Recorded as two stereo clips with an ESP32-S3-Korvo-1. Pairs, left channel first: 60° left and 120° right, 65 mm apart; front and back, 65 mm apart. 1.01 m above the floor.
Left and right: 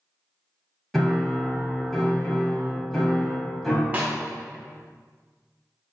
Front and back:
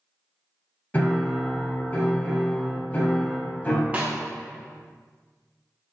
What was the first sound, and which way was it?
A piano, 20° right.